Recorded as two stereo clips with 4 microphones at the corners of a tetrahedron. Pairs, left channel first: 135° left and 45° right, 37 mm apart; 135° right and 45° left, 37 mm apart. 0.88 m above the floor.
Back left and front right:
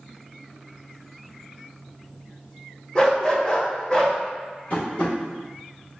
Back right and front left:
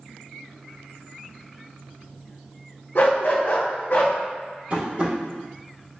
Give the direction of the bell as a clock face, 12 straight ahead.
No bell in this recording.